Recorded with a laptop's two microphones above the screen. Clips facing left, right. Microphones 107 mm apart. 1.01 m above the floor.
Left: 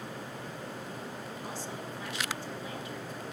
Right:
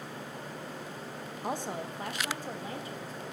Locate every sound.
1.4 s a woman speaking: 55° right (ahead or behind), 1.1 m; by 3.2 s 35° right (ahead or behind), 2.5 m